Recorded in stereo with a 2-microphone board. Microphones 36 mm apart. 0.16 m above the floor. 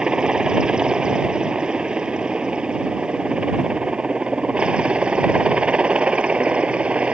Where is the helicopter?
25° right (ahead or behind); by 7.1 s 35° right (ahead or behind).